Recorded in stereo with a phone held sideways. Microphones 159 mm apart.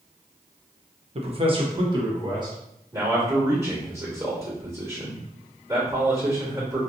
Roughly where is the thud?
No thud in this recording.